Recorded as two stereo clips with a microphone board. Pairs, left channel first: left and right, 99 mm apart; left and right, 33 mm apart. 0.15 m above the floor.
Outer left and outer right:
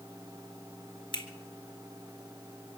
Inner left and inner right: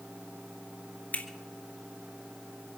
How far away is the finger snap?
About 1.6 m.